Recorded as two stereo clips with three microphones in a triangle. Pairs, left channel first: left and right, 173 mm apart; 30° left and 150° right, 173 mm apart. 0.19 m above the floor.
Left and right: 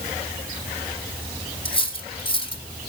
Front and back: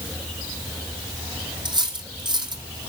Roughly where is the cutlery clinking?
Behind left.